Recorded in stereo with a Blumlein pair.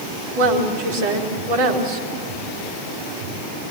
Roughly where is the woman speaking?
Ahead right.